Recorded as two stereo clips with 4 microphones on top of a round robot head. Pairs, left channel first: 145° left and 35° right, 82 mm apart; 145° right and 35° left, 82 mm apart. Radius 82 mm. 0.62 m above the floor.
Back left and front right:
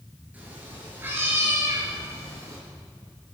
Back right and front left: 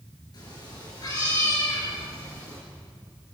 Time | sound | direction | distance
0.3 | a cat meowing | 105° right | 7 m